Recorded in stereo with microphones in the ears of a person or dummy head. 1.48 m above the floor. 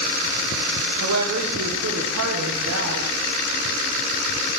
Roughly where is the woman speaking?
Right.